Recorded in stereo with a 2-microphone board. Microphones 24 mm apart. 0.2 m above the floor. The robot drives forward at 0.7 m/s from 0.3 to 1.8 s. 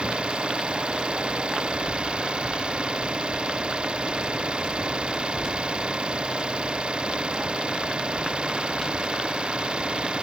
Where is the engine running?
45° right (ahead or behind); by 10.2 s 40° right (ahead or behind).